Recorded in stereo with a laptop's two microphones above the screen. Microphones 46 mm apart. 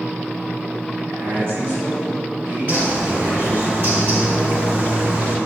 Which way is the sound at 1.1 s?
60° right (ahead or behind).